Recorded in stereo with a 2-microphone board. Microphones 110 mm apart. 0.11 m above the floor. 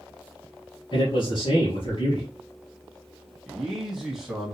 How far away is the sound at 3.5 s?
About 1.3 m.